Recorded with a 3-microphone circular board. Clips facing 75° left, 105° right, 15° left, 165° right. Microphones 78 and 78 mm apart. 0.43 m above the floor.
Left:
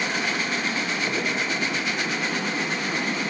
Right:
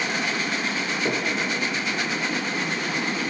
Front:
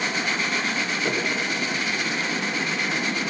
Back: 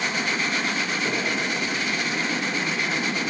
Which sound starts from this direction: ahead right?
Knocking, at 1.1 s.